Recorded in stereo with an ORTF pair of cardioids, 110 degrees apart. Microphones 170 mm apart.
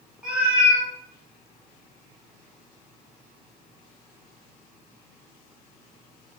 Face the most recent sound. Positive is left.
turn(degrees=-10)